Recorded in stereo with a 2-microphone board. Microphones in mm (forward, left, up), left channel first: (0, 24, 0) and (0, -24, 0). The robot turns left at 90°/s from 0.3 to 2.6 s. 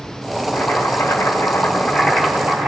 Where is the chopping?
135° left, 4 m; by 2.7 s 50° right, 4 m.